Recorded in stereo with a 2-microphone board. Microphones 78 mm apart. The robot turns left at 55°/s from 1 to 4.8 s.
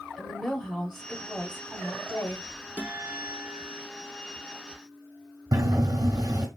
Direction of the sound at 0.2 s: 155° left.